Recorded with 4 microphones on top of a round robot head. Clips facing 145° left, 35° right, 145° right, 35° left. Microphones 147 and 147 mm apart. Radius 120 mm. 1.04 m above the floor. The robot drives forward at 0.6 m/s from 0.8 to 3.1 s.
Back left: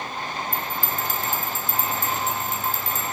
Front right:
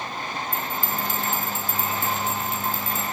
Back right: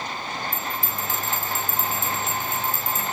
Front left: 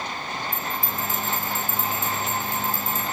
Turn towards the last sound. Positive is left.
turn(degrees=-165)